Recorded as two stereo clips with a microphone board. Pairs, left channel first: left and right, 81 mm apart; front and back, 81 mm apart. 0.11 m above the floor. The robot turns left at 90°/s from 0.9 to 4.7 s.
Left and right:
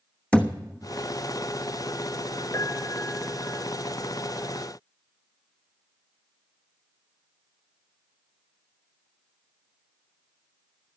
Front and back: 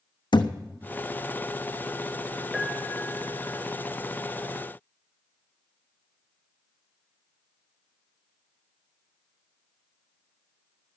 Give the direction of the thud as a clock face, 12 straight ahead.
12 o'clock.